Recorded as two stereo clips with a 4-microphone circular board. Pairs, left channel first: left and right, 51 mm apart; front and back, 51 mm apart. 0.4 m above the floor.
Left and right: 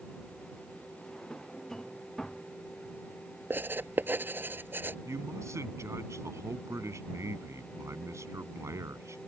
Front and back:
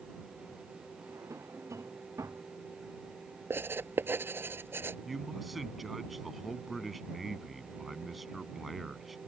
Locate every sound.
1.0 s a drawer: 170° left
3.5 s writing: 140° right
5.0 s a man speaking: 90° right